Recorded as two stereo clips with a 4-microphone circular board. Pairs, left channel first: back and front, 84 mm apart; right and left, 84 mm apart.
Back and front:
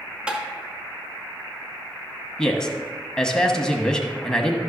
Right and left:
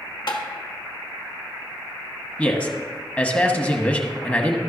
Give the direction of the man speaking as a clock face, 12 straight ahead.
4 o'clock.